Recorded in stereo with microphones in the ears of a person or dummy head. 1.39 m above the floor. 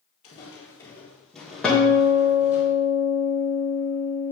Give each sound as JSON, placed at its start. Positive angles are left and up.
{"t": 0.2, "sound": "footsteps", "side_deg": 25, "distance_m": 1.5}
{"t": 1.6, "sound": "a guitar", "side_deg": 10, "distance_m": 1.2}